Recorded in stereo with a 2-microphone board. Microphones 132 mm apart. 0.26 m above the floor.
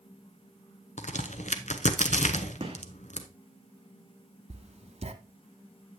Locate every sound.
1.0 s a crack: 65° left (ahead or behind), 0.7 m
2.6 s a gunshot: 45° right (ahead or behind), 1.6 m
4.5 s writing: 55° right (ahead or behind), 0.9 m